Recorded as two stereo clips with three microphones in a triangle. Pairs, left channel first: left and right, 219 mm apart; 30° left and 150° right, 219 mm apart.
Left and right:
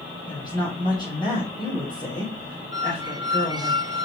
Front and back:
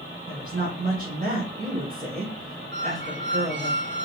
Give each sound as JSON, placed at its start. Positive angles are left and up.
{"t": 0.3, "sound": "a woman speaking", "azimuth_deg": 160, "distance_m": 3.5}
{"t": 2.7, "sound": "a squeak", "azimuth_deg": -160, "distance_m": 0.9}